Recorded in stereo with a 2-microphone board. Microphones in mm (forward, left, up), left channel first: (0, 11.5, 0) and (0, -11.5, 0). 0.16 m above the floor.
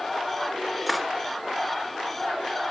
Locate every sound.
0.9 s cutlery clinking: centre (ahead or behind), 1.5 m